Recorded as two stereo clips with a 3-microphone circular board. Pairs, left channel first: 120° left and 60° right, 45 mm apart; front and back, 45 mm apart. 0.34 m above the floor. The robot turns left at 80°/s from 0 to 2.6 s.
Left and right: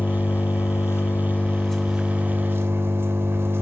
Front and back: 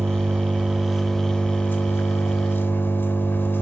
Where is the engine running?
Straight behind, 2.0 m; by 3.6 s 30° right, 2.0 m.